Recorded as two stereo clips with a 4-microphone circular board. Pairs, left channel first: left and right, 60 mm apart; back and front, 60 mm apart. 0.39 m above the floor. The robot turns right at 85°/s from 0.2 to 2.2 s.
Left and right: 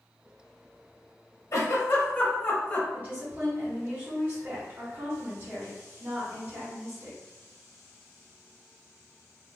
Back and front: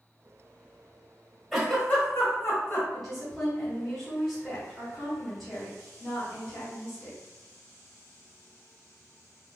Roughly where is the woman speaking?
Right.